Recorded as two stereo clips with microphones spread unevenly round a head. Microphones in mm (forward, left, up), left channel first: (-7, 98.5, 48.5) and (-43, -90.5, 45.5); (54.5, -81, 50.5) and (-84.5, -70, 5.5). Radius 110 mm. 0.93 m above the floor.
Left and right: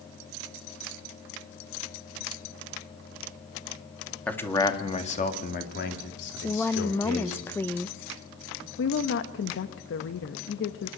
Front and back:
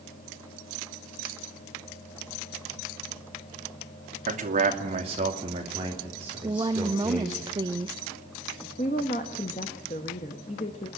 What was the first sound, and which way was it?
A man speaking, 160° left.